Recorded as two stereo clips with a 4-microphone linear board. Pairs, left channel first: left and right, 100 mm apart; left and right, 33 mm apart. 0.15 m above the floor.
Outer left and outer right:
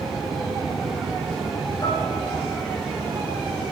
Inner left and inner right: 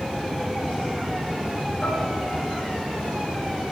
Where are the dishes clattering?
40° left (ahead or behind), 1.4 m.